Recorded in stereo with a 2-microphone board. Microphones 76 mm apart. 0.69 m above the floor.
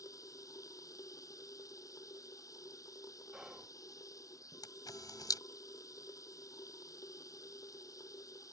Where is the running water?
50° left (ahead or behind).